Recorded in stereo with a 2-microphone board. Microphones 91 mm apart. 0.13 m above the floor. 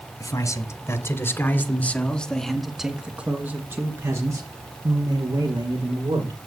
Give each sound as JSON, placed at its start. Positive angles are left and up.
{"t": 0.2, "sound": "a man speaking", "side_deg": 40, "distance_m": 2.5}